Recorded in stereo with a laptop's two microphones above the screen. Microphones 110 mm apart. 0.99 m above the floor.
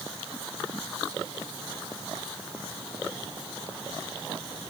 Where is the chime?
I don't hear a chime.